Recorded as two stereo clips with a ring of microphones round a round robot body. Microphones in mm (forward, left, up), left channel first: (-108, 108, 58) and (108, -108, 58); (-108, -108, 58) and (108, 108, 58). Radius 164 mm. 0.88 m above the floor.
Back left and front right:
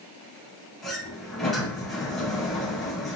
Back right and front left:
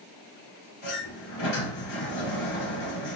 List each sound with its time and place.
0.8 s a sliding door: 135° right, 2 m